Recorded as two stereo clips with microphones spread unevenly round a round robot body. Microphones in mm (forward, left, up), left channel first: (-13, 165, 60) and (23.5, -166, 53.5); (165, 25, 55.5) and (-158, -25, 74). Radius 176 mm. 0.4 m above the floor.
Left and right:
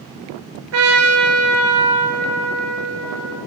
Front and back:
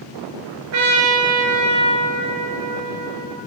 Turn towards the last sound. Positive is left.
turn(degrees=-130)